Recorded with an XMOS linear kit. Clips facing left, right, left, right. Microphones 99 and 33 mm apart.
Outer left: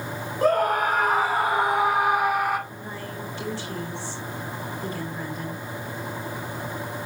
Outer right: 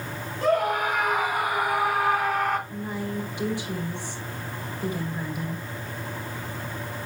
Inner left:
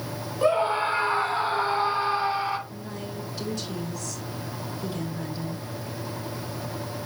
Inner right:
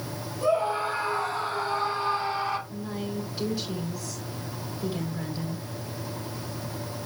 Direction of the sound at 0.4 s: 45° left (ahead or behind).